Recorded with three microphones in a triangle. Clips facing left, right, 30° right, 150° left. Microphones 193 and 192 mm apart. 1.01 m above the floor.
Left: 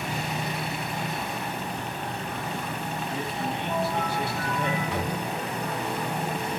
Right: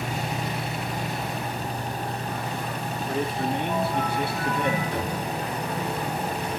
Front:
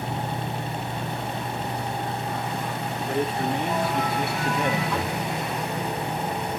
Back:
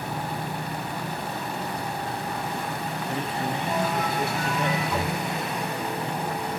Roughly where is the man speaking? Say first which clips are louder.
Right 7 dB, front 5 dB; ahead right.